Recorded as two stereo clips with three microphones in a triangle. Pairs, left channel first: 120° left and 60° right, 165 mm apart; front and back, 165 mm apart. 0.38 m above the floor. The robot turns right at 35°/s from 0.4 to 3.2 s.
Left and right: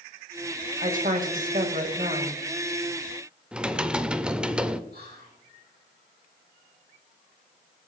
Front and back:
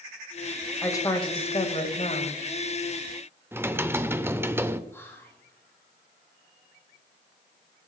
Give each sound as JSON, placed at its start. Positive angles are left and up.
{"t": 0.8, "sound": "a woman speaking", "azimuth_deg": -70, "distance_m": 1.8}
{"t": 3.5, "sound": "typing on a keyboard", "azimuth_deg": -130, "distance_m": 0.7}
{"t": 4.9, "sound": "whispering", "azimuth_deg": -75, "distance_m": 3.5}